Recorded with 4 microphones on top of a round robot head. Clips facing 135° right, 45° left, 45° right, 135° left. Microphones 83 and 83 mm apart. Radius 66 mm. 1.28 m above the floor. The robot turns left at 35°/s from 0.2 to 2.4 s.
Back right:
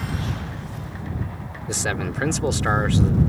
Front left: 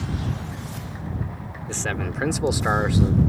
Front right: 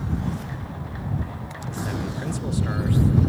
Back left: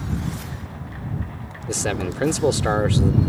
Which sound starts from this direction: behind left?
A man speaking, at 1.7 s.